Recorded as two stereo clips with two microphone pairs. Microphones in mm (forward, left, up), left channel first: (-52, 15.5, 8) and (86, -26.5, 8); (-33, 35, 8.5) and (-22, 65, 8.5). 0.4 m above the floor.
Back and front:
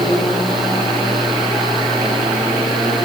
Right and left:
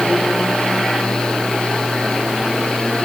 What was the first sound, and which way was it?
Only background noise.